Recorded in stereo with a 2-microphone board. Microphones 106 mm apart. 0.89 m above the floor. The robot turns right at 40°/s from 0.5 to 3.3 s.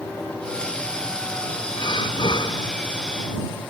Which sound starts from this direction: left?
Breathing, at 1.8 s.